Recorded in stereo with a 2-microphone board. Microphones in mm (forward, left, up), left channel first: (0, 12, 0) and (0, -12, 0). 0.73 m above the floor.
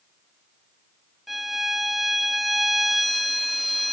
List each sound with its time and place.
1.3 s a violin: centre (ahead or behind), 1.2 m